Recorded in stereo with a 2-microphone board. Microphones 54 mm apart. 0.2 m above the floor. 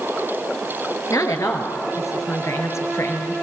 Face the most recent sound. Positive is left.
turn(degrees=55)  # may be behind; listen again after turning